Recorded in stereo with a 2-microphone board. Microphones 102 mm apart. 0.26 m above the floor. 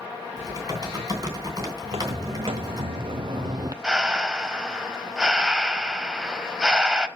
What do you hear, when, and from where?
0.4 s typing on a keyboard: 40° right (ahead or behind), 3 m
1.8 s footsteps: 65° right (ahead or behind), 1.4 m; by 3.7 s 40° right (ahead or behind), 0.5 m
3.8 s breathing: 10° right (ahead or behind), 0.8 m